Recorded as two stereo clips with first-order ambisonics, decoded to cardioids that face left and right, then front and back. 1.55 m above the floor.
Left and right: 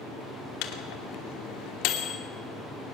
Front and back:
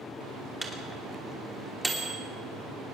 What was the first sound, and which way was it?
A microwave, 95° left.